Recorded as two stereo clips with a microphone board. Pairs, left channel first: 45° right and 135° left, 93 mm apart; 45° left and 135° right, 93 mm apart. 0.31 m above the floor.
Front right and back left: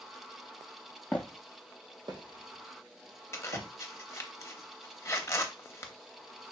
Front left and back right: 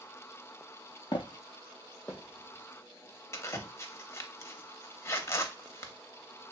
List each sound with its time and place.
1.1 s footsteps: 25° left, 0.5 m; by 3.7 s 130° left, 1.8 m
3.3 s a zipper: straight ahead, 0.5 m